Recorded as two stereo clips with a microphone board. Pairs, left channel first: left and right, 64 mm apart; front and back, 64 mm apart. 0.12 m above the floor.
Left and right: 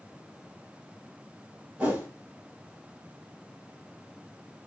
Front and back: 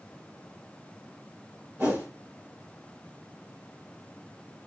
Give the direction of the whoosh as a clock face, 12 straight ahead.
5 o'clock.